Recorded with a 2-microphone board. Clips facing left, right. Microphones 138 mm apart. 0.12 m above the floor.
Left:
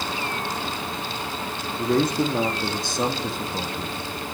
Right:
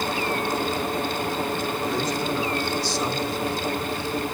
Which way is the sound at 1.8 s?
55° left (ahead or behind).